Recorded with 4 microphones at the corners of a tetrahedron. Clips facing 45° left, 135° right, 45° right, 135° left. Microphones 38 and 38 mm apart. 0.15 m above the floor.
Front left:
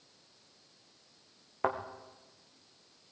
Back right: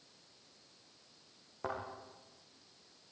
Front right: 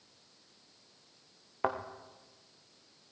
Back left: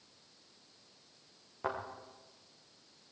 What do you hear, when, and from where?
1.6 s a thud: 5° left, 3.5 m